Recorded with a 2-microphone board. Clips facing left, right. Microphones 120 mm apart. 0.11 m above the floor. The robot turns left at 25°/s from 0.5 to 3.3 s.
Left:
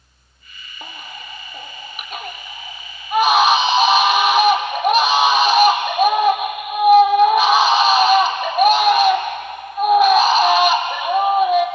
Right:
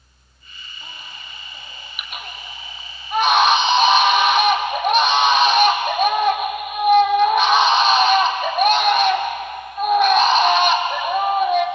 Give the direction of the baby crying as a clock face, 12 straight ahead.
10 o'clock.